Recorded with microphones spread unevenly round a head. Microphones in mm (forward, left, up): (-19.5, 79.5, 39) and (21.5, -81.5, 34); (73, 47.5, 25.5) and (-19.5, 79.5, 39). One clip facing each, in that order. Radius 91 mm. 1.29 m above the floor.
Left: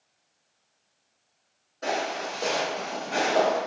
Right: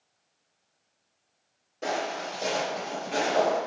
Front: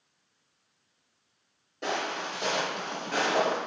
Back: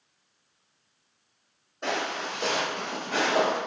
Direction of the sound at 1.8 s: 55° right.